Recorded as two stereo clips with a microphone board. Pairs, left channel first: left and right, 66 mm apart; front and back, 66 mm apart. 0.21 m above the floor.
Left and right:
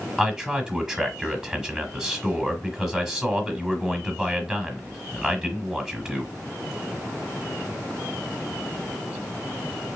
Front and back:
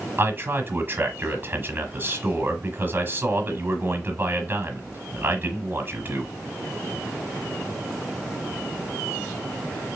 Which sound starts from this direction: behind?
A man speaking, at 0.2 s.